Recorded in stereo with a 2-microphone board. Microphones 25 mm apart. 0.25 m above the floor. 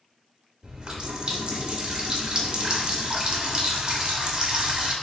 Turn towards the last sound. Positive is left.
turn(degrees=-30)  # may be behind; listen again after turning